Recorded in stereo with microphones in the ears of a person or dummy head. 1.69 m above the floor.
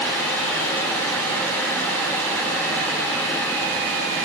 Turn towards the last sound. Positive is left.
No sound to turn to.